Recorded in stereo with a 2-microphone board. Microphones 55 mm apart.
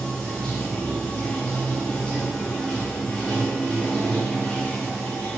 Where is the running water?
20° left (ahead or behind), 1.3 m.